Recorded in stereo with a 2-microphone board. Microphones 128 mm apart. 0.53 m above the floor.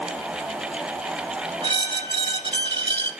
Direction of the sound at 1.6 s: 40° right (ahead or behind).